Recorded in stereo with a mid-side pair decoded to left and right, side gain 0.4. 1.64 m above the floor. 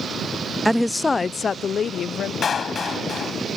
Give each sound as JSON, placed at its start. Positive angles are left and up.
{"t": 0.7, "sound": "a woman speaking", "azimuth_deg": -5}
{"t": 2.4, "sound": "a clap", "azimuth_deg": 50}